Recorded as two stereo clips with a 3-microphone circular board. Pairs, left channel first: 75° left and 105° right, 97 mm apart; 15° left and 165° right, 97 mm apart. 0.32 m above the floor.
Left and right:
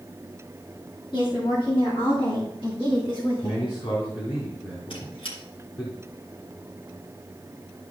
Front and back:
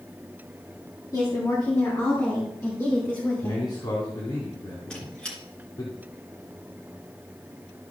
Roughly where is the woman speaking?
Ahead left.